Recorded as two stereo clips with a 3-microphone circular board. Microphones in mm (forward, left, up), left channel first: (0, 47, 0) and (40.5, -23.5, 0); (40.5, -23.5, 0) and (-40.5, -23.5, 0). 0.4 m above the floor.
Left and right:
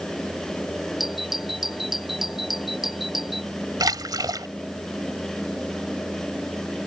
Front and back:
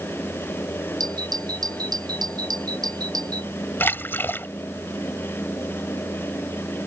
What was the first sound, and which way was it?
A doorbell, 145° right.